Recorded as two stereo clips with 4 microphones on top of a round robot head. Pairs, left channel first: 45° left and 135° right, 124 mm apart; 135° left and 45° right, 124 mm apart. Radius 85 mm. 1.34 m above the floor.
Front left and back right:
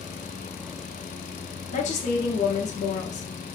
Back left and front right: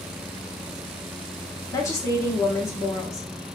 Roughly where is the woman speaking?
Left.